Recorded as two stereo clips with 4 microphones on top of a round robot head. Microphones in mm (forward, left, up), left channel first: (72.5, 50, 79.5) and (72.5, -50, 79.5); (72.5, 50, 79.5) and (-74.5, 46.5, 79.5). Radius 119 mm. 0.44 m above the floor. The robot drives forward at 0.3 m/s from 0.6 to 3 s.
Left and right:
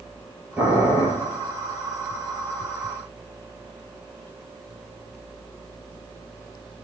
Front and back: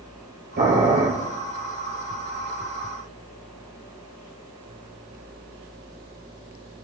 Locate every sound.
0.6 s boiling: 170° right, 3.5 m